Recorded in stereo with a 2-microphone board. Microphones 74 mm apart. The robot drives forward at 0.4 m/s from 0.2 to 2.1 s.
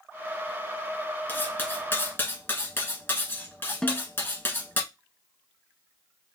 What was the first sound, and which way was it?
Cutlery clinking, 25° left (ahead or behind).